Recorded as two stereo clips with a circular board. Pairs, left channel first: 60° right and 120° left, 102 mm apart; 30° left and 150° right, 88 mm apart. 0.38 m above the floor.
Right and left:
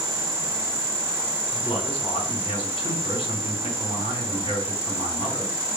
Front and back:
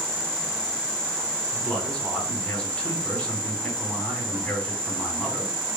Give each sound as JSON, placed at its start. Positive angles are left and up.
{"t": 1.5, "sound": "a man speaking", "azimuth_deg": -45, "distance_m": 2.5}